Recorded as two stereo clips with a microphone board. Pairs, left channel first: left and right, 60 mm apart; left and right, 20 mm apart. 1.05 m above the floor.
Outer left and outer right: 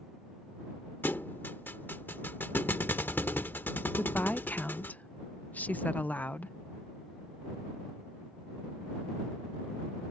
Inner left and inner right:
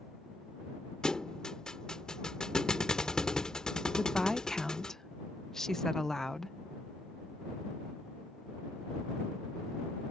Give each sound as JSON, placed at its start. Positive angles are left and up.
{"t": 1.0, "sound": "a thud", "side_deg": 35}
{"t": 4.0, "sound": "a woman speaking", "side_deg": 30}